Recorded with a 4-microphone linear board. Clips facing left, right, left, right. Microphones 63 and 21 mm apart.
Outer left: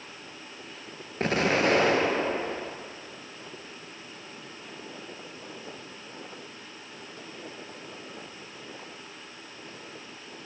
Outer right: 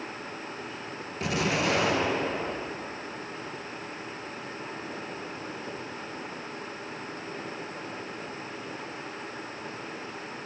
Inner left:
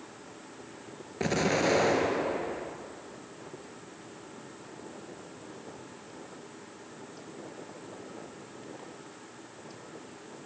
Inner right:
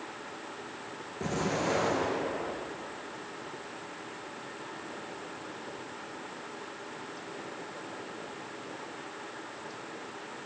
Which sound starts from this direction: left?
An explosion, at 1.2 s.